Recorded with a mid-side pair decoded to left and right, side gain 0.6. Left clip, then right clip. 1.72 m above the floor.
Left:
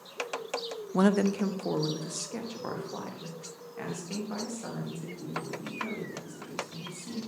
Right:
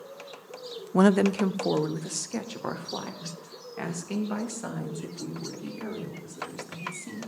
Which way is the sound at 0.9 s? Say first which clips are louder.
Right 4 dB; 25° right.